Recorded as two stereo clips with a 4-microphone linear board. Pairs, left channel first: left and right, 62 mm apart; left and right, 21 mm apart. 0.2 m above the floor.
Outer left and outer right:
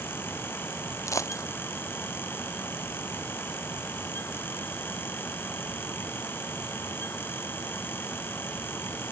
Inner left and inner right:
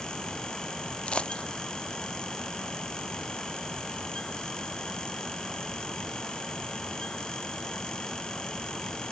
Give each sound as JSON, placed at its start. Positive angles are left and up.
{"t": 1.1, "sound": "a dropped coin", "side_deg": 55}